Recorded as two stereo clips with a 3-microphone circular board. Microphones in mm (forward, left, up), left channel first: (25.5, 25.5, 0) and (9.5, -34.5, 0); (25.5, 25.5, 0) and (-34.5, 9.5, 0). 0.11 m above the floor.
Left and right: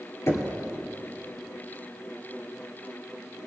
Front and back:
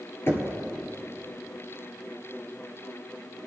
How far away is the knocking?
About 1.8 m.